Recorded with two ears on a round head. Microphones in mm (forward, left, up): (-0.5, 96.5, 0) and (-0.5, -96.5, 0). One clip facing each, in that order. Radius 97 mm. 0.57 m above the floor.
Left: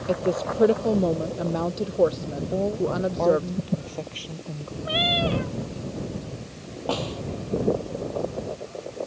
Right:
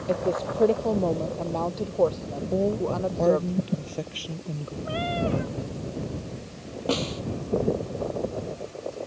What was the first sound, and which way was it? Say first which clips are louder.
A woman speaking: left 1 dB; 10° left (ahead or behind).